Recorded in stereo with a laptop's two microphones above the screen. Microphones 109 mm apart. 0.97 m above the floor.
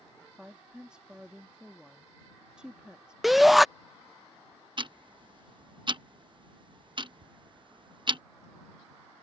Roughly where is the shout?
Centre.